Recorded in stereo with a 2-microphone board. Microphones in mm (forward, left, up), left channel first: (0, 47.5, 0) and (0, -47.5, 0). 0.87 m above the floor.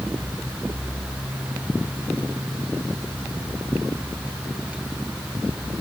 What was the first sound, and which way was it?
Only background noise.